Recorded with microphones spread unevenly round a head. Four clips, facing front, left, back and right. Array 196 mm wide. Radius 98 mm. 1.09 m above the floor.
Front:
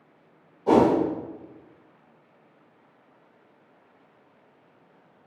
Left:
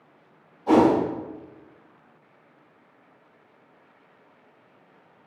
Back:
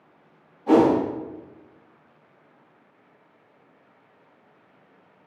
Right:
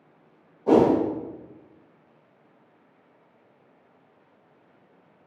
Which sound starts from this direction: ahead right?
A whoosh, at 0.7 s.